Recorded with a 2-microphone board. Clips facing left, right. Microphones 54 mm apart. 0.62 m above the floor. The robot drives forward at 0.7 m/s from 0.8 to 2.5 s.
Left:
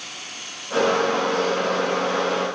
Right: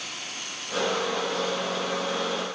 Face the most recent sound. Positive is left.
No sound to turn to.